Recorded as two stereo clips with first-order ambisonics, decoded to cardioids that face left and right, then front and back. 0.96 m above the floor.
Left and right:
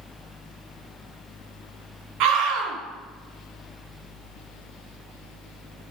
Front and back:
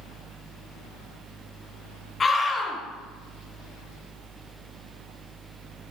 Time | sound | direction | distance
2.2 | a scream | 75° right | 1.8 m